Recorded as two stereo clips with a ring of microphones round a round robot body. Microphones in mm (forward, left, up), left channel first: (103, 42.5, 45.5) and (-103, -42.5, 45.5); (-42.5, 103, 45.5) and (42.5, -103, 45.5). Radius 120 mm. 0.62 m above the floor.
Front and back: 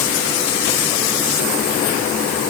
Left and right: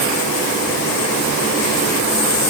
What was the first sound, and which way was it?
Only background noise.